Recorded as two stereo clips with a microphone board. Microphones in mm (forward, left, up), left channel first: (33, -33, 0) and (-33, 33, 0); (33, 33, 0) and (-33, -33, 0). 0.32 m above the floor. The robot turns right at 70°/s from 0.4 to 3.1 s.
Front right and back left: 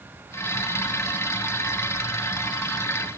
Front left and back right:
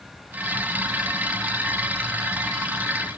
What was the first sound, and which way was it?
Only background noise.